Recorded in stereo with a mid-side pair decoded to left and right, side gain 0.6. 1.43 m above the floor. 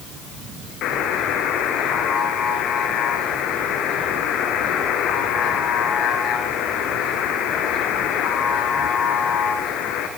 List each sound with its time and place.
0.8 s a buzzer: 65° left, 4 m